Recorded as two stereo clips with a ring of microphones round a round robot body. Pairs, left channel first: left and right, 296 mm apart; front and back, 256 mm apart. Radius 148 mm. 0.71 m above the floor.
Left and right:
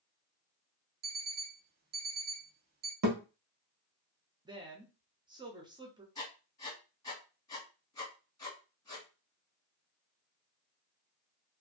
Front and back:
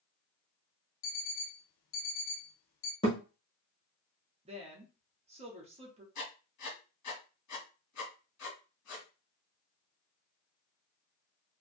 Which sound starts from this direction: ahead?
Writing, at 6.2 s.